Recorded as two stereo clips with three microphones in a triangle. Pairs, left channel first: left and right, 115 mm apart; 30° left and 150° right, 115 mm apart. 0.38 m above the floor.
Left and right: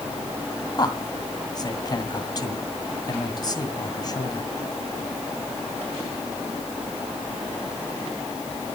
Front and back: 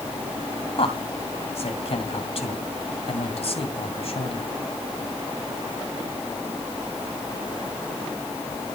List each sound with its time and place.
0.8 s a man speaking: 45° left, 2.5 m